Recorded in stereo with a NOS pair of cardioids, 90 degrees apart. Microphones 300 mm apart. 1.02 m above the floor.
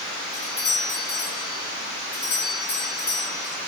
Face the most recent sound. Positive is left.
turn(degrees=35)